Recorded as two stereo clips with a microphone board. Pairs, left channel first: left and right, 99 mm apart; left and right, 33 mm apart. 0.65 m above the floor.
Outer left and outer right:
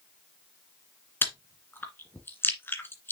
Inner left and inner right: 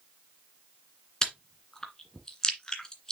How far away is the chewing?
About 1.9 m.